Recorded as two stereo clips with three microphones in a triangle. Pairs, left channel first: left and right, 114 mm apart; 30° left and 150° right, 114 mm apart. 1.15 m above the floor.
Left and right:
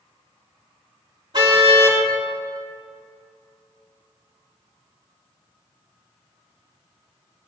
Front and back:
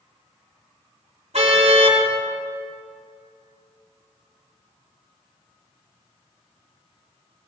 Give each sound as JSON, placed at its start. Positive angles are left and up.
{"t": 1.3, "sound": "a car horn", "azimuth_deg": -140, "distance_m": 4.5}